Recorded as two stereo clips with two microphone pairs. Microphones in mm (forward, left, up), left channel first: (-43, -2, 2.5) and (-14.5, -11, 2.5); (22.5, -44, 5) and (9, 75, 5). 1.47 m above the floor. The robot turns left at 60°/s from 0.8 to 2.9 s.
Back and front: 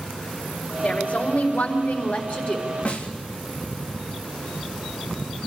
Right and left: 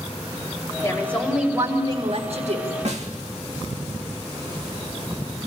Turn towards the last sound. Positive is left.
turn(degrees=120)